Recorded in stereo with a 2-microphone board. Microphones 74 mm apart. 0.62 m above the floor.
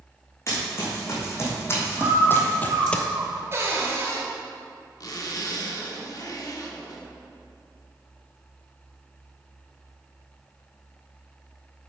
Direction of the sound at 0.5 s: 40° left (ahead or behind).